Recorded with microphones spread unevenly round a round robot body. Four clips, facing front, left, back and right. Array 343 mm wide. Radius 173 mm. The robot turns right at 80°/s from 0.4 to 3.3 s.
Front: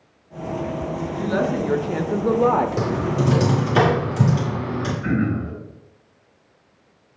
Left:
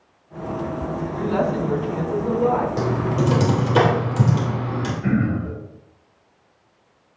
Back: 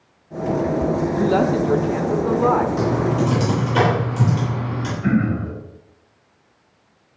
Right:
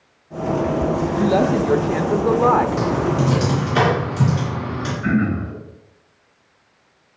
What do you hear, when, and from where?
1.1 s a woman speaking: 145° right, 0.8 m; by 2.7 s 25° right, 0.8 m
2.8 s typing on a keyboard: 25° left, 3 m; by 4.9 s 70° left, 3 m
5.0 s throat clearing: 150° left, 4.5 m